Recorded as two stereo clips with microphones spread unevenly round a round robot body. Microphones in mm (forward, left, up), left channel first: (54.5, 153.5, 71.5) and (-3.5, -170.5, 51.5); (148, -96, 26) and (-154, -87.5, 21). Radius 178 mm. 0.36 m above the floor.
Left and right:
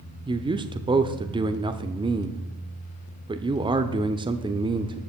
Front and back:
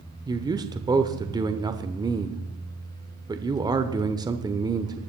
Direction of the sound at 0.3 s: 130° right.